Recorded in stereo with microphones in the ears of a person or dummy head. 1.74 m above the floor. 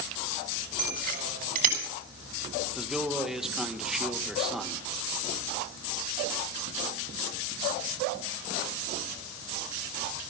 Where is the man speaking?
Centre (ahead or behind), 1.8 m.